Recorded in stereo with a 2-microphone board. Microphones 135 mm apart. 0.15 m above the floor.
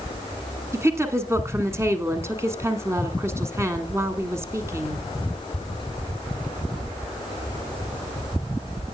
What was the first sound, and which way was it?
A woman speaking, 20° right (ahead or behind).